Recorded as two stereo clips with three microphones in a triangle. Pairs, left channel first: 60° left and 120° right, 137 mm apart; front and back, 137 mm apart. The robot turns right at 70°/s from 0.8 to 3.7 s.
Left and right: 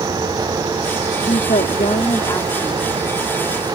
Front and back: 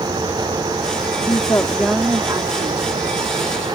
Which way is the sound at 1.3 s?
45° left.